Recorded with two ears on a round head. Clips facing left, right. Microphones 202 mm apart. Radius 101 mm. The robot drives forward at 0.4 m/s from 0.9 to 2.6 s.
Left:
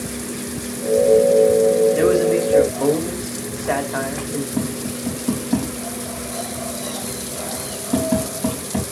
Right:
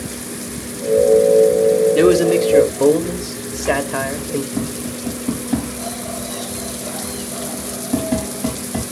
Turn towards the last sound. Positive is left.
turn(degrees=0)  # may be behind; listen again after turning